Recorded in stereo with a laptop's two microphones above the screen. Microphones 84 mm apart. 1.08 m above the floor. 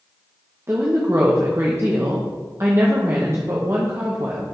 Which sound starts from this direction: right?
A woman speaking, at 0.7 s.